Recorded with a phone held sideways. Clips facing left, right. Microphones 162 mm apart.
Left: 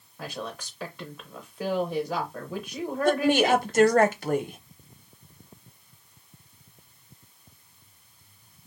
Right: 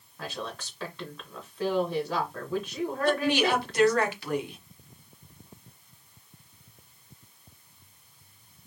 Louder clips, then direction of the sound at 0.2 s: Left 1 dB; 10° left (ahead or behind).